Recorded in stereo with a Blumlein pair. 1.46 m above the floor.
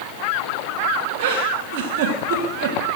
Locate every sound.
1.2 s a giggle: 50° right, 3 m